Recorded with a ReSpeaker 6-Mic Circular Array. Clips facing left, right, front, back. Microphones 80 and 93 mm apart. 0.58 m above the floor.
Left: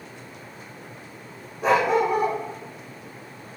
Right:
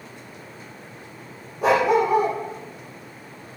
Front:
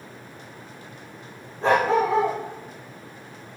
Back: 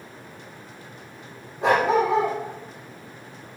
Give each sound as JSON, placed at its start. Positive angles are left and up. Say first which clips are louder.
{"t": 1.6, "sound": "a dog barking", "louder": "right 2 dB, even", "azimuth_deg": -105, "distance_m": 5.5}